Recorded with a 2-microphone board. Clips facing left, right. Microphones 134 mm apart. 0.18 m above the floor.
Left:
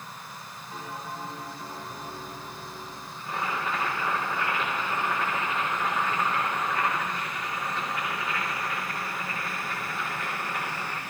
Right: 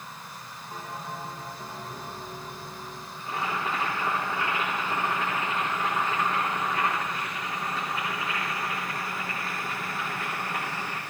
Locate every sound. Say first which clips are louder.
0.7 s a bell: even; 40° right (ahead or behind), 7.5 m
3.2 s boiling: even; 40° right (ahead or behind), 9.5 m